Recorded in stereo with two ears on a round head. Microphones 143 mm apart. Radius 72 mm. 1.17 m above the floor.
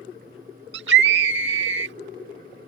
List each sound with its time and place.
0.7 s a scream: 75° right (ahead or behind)